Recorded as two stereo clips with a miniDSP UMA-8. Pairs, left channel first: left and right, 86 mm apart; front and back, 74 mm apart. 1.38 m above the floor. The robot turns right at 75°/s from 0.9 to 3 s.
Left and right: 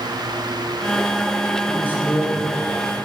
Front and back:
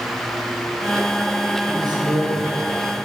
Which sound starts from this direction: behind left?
A man speaking, at 1.7 s.